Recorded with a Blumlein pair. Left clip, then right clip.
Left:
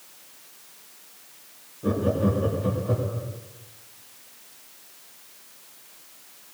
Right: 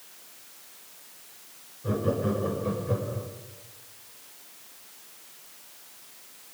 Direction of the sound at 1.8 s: 45° left.